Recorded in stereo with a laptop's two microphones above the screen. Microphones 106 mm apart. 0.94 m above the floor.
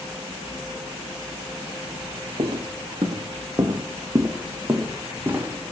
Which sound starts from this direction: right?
Footsteps, at 2.4 s.